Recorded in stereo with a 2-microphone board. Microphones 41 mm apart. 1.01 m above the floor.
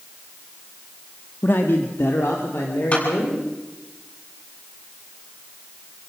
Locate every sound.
1.4 s a man speaking: 60° left (ahead or behind), 1.5 m; by 3.4 s 80° left, 4 m
2.9 s a clap: 40° left (ahead or behind), 8 m